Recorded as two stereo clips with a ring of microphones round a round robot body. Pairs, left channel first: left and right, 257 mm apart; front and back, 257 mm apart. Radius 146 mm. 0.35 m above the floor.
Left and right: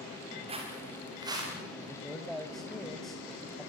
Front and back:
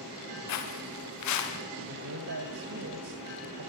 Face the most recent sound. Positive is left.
turn(degrees=180)